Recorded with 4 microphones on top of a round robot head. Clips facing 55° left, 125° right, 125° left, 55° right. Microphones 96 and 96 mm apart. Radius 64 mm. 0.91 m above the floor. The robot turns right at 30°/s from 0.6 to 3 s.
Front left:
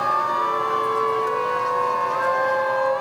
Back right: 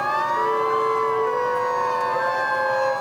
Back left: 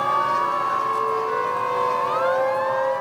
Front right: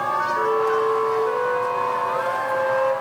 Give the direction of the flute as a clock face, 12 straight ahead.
3 o'clock.